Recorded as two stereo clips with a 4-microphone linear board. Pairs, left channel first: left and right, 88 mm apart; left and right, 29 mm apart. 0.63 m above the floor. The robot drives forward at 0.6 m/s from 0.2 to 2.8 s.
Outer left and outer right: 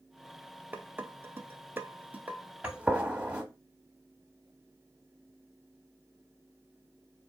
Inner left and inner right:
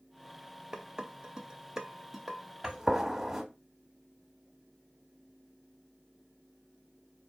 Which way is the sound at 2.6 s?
15° right (ahead or behind).